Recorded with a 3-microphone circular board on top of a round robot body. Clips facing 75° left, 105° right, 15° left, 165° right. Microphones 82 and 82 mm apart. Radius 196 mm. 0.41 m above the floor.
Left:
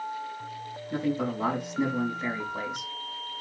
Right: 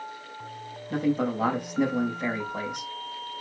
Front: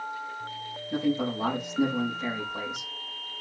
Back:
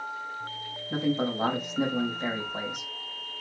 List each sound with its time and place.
0.9 s a man speaking: 125° right, 4 m